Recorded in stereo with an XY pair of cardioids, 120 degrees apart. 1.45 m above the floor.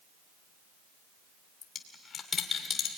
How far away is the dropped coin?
About 2.5 m.